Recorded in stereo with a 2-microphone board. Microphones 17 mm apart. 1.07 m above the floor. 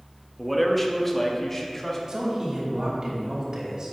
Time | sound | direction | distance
0.4 | a man speaking | 5° left (ahead or behind) | 1.0 m
2.1 | a man speaking | 45° right (ahead or behind) | 3 m